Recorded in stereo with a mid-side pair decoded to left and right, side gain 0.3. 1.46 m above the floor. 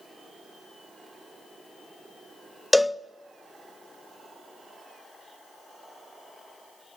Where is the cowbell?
25° left, 0.5 m.